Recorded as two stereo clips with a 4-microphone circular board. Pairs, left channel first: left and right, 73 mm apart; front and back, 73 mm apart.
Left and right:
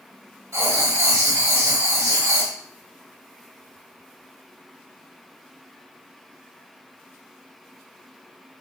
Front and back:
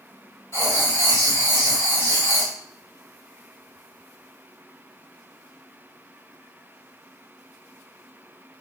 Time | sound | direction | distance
0.5 | writing | 45° right | 2 m